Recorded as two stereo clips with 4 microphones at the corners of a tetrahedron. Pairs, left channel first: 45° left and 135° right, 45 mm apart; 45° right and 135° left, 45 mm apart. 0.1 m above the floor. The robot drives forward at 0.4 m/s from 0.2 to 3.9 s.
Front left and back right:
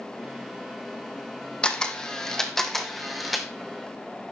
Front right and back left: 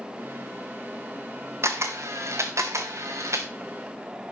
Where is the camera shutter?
115° left, 1.3 m; by 3.5 s 135° left, 1.8 m.